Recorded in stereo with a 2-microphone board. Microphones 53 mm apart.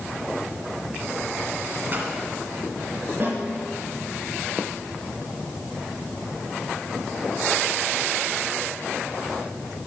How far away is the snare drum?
About 3.5 m.